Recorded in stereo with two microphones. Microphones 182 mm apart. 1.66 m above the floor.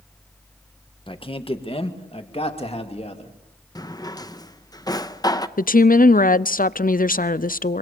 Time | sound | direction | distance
1.1 | a man speaking | 30° left (ahead or behind) | 1.6 m
3.8 | a drawer | 20° left (ahead or behind) | 0.8 m
5.6 | a woman speaking | 55° left (ahead or behind) | 0.6 m